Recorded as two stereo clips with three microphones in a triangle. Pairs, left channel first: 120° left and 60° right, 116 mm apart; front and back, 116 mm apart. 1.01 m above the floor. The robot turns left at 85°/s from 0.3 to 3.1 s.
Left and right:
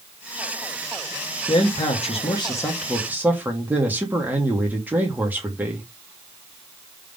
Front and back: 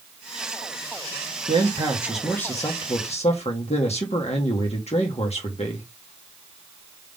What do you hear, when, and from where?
1.5 s a man speaking: 150° left, 2 m; by 5.9 s 15° left, 2 m